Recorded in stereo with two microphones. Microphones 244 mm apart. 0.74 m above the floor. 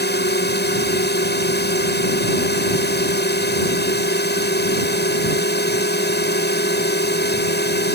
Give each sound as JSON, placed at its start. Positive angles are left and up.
{"t": 0.0, "sound": "a drone", "side_deg": 45}